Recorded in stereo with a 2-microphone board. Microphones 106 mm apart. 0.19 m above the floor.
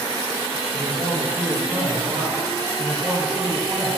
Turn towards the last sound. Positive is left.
turn(degrees=-15)  # may be behind; listen again after turning